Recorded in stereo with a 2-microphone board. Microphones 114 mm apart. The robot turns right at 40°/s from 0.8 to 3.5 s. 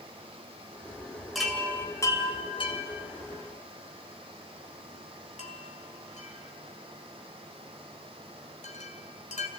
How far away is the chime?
About 2.5 m.